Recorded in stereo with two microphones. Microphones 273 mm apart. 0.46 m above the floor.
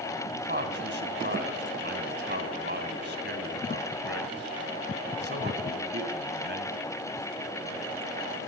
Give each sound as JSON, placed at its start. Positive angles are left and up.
{"t": 0.4, "sound": "a man speaking", "side_deg": -45, "distance_m": 2.5}